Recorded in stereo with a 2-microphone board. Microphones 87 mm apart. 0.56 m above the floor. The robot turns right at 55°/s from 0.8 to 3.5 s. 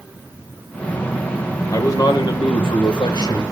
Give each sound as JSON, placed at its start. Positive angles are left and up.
{"t": 1.7, "sound": "a man speaking", "azimuth_deg": 40, "distance_m": 1.6}